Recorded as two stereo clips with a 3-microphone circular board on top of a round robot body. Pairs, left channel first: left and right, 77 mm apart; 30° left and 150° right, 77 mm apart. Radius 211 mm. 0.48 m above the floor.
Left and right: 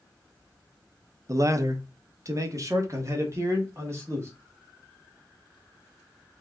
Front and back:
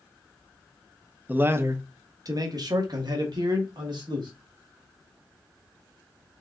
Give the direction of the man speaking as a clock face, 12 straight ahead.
3 o'clock.